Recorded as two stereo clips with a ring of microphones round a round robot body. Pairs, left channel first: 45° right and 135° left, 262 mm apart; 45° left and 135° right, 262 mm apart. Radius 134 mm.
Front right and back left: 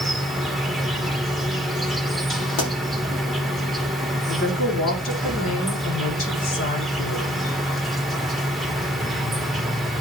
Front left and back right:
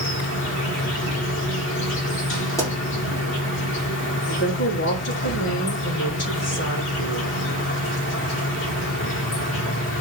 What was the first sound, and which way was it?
An insect, 45° left.